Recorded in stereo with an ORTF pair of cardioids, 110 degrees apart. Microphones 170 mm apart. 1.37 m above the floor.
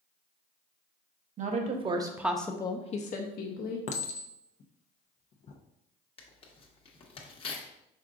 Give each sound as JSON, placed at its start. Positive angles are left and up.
{"t": 1.4, "sound": "a woman speaking", "azimuth_deg": -45, "distance_m": 1.2}
{"t": 3.9, "sound": "a clink", "azimuth_deg": 45, "distance_m": 0.7}
{"t": 6.2, "sound": "tearing paper", "azimuth_deg": 35, "distance_m": 1.1}